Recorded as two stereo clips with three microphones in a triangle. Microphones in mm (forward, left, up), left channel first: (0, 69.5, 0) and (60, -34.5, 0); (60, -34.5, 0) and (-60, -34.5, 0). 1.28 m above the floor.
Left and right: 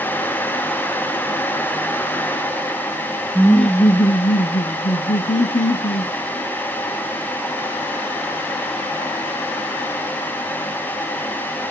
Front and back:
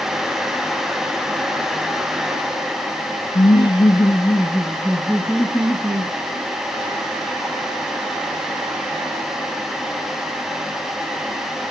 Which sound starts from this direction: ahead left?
Laughter, at 3.4 s.